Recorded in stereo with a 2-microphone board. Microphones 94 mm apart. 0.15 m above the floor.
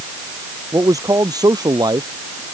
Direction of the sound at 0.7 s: 40° right (ahead or behind).